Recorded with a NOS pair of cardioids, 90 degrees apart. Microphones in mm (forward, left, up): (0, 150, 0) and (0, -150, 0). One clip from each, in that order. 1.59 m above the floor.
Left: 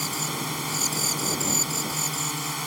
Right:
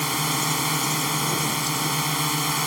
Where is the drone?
50° right.